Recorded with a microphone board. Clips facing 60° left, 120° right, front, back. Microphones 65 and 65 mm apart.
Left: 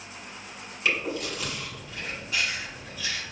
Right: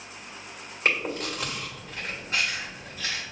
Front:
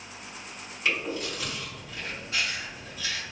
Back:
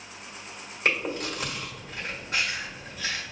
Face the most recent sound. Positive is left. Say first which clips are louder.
# right 1 dB, back 2 dB
turn(degrees=-155)